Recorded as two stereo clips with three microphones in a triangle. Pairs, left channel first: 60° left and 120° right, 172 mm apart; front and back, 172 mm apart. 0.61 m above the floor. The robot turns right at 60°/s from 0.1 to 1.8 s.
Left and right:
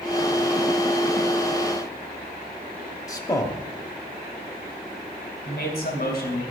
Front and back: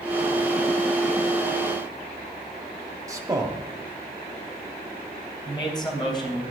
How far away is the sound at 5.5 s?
About 3 m.